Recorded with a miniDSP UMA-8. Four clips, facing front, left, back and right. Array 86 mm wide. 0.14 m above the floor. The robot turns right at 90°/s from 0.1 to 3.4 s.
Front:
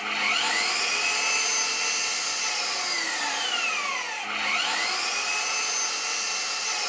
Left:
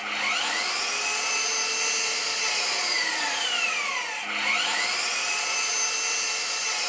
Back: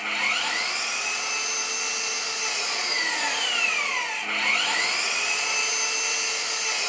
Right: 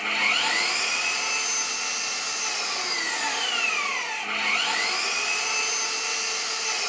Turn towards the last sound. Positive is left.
turn(degrees=-175)